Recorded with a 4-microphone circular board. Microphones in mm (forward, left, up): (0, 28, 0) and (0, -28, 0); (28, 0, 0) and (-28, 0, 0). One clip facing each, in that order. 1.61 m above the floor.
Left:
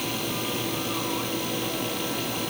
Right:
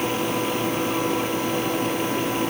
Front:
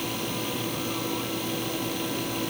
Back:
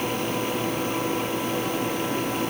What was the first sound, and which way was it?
Only background noise.